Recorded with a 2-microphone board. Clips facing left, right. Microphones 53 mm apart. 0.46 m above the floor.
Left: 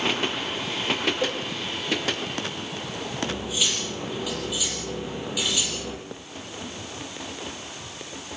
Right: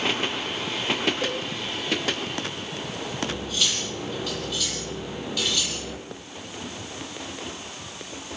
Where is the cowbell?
15° left (ahead or behind), 2 m.